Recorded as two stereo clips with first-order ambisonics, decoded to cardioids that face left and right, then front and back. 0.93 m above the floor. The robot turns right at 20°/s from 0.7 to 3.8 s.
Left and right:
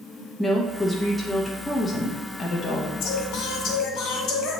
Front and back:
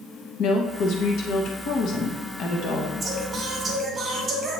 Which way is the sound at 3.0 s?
95° left.